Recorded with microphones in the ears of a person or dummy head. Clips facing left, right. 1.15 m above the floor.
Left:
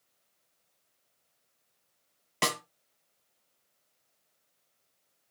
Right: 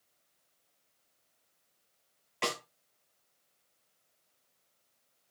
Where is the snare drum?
50° left (ahead or behind), 1.6 m.